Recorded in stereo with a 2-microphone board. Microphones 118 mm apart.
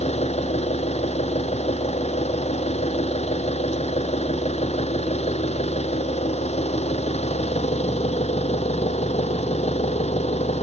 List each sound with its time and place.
0.0 s an engine running: 60° left (ahead or behind)